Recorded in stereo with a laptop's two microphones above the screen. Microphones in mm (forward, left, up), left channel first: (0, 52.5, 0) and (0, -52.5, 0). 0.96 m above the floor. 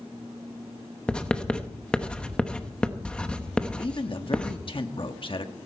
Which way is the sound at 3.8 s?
50° left (ahead or behind).